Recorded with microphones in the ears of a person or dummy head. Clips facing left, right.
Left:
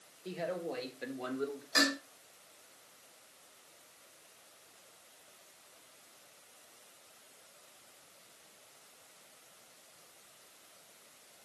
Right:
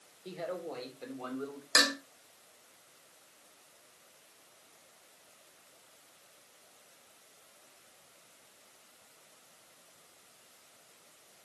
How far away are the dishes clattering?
About 3.5 m.